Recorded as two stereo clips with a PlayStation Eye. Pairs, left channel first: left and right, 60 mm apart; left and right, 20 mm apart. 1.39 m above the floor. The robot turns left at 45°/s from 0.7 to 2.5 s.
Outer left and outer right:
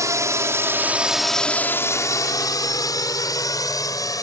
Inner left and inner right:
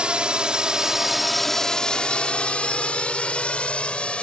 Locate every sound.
0.0 s a drone: 60° right (ahead or behind); by 4.2 s 70° left (ahead or behind)